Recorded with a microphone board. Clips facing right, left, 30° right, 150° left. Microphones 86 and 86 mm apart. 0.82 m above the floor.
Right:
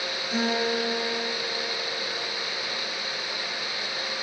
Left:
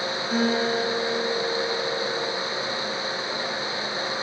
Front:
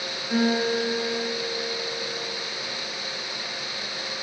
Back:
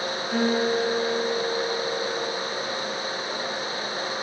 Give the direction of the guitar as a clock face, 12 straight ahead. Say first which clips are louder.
Left 3 dB, even; 11 o'clock.